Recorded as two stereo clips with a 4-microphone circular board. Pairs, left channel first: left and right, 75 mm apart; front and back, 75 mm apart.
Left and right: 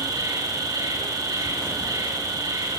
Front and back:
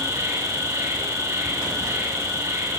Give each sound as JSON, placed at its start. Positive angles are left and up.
{"t": 0.0, "sound": "an insect", "azimuth_deg": -130, "distance_m": 4.5}